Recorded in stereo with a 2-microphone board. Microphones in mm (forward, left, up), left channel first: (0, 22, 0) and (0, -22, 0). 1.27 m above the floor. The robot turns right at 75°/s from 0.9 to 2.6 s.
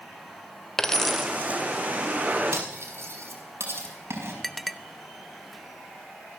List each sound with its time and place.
0.8 s a dropped coin: 165° left, 1.3 m; by 1.3 s 165° right, 1.3 m
2.5 s cutlery clinking: 80° right, 5 m; by 4.3 s 75° right (ahead or behind), 5 m
4.4 s a clink: centre (ahead or behind), 0.7 m